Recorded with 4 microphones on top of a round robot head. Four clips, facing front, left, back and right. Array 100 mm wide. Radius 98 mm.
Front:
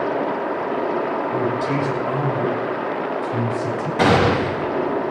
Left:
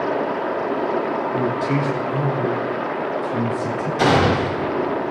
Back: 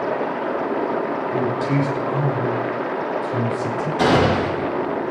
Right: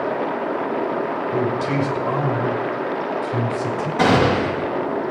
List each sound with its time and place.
1.3 s a man speaking: 70° right, 5 m; by 3.9 s 55° right, 6 m
4.0 s a gunshot: 30° right, 9 m